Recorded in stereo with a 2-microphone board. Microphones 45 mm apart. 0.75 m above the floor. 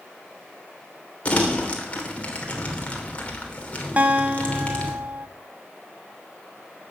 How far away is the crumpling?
About 3 m.